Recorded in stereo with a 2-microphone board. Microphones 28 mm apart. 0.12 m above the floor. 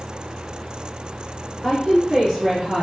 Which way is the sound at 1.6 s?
5° right (ahead or behind).